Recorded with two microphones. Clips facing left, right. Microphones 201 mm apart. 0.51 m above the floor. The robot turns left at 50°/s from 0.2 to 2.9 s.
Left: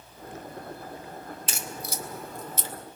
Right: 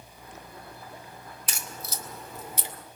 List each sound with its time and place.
1.5 s a crack: 25° left (ahead or behind), 1.8 m; by 2.7 s 20° right (ahead or behind), 1.8 m